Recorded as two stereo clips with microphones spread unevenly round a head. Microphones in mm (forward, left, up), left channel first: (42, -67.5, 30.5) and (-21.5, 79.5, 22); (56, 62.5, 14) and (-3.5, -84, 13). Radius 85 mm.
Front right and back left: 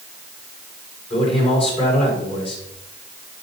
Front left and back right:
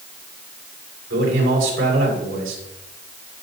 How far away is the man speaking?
About 5.5 m.